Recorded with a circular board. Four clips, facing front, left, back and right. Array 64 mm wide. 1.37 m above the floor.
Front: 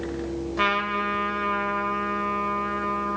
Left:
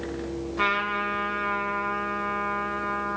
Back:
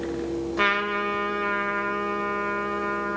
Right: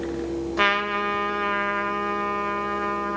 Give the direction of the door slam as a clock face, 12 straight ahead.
No door slam in this recording.